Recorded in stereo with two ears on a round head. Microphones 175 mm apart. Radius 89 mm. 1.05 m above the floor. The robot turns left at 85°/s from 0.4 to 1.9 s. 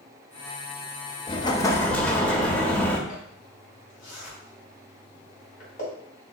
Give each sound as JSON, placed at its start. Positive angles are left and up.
{"t": 1.3, "sound": "an explosion", "side_deg": 25, "distance_m": 0.5}
{"t": 3.1, "sound": "a zipper", "side_deg": 50, "distance_m": 2.5}